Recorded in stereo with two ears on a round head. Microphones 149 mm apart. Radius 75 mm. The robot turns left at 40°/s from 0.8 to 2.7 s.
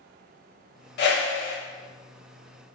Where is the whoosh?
65° left (ahead or behind), 0.6 m; by 1.6 s 85° left, 0.6 m.